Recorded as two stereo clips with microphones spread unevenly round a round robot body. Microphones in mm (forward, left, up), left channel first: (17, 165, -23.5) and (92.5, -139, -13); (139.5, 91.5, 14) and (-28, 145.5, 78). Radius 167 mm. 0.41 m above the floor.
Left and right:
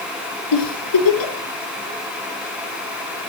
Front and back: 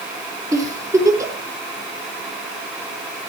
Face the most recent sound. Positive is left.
turn(degrees=90)